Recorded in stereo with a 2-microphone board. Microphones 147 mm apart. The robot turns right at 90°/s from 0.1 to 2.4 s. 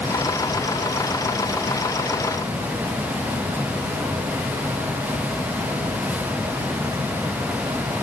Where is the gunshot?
No gunshot in this recording.